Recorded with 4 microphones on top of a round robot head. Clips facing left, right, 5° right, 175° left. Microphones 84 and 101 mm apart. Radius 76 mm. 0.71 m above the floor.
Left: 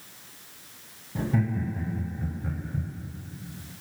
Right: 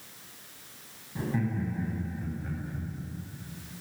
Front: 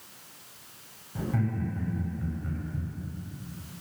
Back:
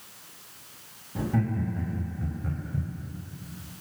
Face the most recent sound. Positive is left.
turn(degrees=130)